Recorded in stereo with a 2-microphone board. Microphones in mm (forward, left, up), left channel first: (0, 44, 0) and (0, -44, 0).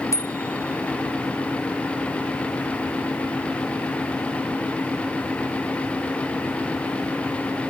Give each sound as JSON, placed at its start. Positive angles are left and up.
{"t": 0.1, "sound": "a bicycle bell", "side_deg": 35}